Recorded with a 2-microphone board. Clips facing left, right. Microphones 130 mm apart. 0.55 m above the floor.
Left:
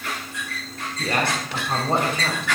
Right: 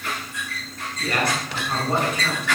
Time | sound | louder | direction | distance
1.0 | a man speaking | even | 30° left (ahead or behind) | 3 m